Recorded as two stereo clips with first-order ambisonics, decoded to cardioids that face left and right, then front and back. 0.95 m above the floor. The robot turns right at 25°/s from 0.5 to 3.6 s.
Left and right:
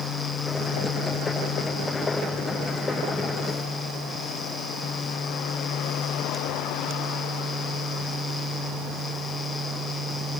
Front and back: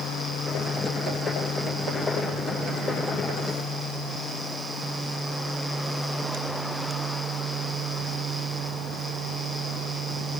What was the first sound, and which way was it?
Only background noise.